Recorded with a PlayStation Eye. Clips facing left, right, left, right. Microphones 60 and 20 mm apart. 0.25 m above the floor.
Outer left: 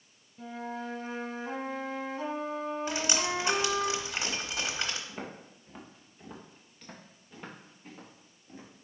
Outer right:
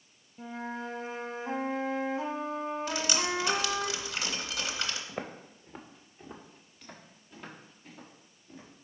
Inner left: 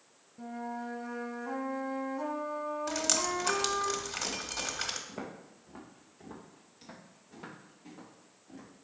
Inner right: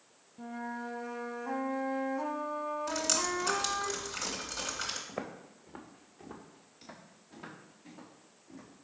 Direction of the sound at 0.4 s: 10° right (ahead or behind).